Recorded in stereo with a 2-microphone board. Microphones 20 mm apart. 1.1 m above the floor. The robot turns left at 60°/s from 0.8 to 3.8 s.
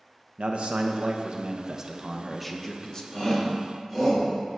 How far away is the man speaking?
About 0.7 m.